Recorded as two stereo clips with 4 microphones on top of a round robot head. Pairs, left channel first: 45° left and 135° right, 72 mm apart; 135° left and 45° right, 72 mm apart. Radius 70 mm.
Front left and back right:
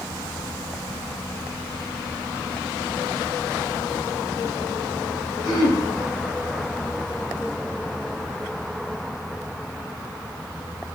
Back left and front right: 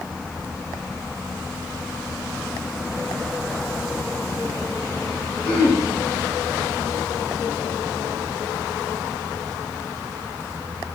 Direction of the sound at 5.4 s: 70° left.